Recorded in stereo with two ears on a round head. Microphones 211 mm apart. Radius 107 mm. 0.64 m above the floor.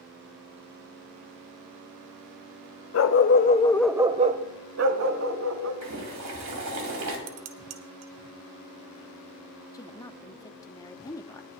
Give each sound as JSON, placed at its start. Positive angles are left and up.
{"t": 2.9, "sound": "a dog barking", "side_deg": 60, "distance_m": 0.8}
{"t": 5.8, "sound": "boiling", "side_deg": -75, "distance_m": 3.5}
{"t": 7.3, "sound": "dishes clattering", "side_deg": -75, "distance_m": 1.2}
{"t": 9.7, "sound": "a woman speaking", "side_deg": 15, "distance_m": 0.8}